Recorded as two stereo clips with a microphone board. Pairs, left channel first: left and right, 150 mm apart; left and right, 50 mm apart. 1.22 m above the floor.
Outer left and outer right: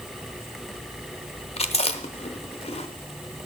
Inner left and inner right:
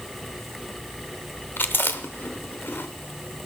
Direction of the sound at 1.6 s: 45° left (ahead or behind).